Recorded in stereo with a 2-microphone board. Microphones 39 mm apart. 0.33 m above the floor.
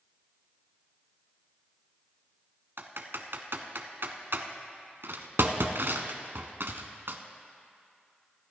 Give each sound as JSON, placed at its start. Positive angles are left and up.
{"t": 2.8, "sound": "typing on a keyboard", "side_deg": -80, "distance_m": 1.1}